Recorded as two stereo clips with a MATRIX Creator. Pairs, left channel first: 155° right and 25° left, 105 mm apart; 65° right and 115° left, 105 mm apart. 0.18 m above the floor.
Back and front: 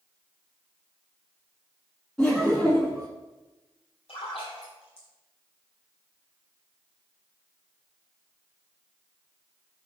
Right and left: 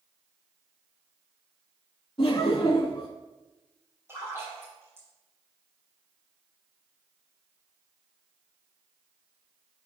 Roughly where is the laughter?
Right.